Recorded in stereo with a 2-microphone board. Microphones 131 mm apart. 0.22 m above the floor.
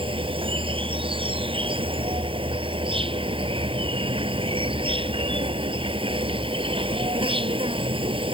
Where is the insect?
40° right (ahead or behind).